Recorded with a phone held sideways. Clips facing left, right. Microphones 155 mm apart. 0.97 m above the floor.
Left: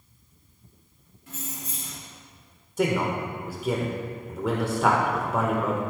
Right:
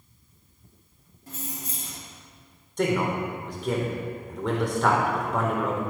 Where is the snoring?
I don't hear snoring.